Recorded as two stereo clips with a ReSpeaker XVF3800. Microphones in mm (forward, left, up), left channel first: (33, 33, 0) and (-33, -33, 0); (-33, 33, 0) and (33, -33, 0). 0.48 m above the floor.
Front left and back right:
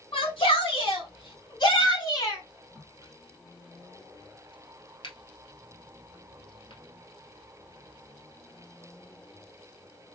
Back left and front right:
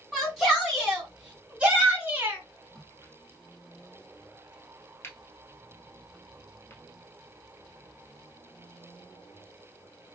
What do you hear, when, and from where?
0.1 s a shout: 40° left, 2.5 m; by 2.4 s 15° left, 1.3 m
2.8 s a crack: 70° left, 1.5 m